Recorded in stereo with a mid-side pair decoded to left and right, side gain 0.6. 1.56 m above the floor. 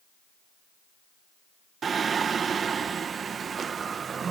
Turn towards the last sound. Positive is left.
turn(degrees=-35)